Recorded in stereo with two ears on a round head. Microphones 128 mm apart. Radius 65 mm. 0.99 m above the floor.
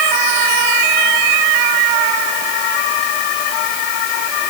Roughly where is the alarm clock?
I don't hear an alarm clock.